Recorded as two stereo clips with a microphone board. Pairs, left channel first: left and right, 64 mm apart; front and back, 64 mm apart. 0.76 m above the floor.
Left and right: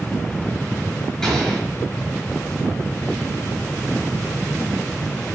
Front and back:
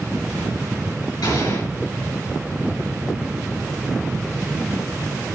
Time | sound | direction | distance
1.2 | an explosion | 5° left | 6 m